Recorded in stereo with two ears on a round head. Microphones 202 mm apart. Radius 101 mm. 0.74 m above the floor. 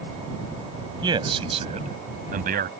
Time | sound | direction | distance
1.0 | a man speaking | 20° right (ahead or behind) | ?